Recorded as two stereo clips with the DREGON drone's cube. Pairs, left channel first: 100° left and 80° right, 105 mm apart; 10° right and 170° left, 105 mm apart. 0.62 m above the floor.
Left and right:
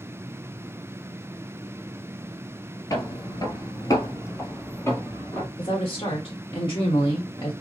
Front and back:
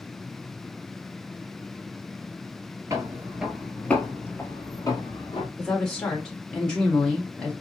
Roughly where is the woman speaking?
Ahead left.